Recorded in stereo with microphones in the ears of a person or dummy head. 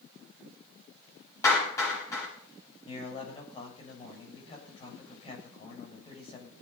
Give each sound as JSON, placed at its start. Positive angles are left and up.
{"t": 1.4, "sound": "a clap", "side_deg": 15, "distance_m": 7.0}
{"t": 2.9, "sound": "a man speaking", "side_deg": 30, "distance_m": 7.0}